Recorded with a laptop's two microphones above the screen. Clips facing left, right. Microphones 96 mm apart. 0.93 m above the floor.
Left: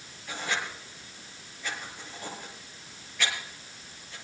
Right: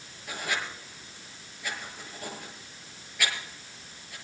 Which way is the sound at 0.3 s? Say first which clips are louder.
Even; 5° right (ahead or behind).